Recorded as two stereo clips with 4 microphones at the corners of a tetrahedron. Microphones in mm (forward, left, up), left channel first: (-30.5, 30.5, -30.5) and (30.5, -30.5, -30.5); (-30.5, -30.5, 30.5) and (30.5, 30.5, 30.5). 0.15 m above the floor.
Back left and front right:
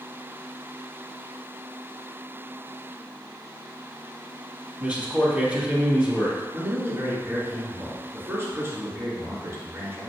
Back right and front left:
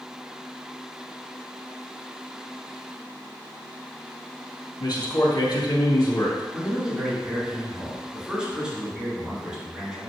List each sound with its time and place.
4.8 s a man speaking: 115° right, 3 m
6.5 s a man speaking: 25° right, 2 m